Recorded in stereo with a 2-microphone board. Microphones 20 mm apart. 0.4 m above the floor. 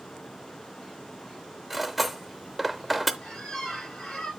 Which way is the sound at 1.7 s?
5° right (ahead or behind).